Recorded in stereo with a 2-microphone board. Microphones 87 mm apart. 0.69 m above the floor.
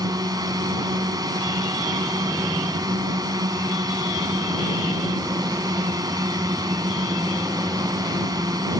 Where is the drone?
45° right (ahead or behind).